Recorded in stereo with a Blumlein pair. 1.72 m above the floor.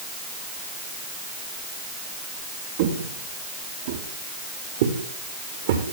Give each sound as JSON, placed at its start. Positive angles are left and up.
{"t": 2.8, "sound": "footsteps", "azimuth_deg": -55, "distance_m": 7.0}